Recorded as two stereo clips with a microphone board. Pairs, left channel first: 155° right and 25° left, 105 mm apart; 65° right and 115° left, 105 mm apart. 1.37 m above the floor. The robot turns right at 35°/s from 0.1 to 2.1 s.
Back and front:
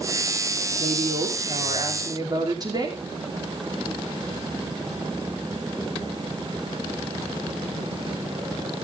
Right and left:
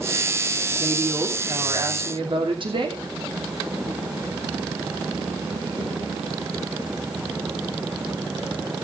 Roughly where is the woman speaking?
Ahead left.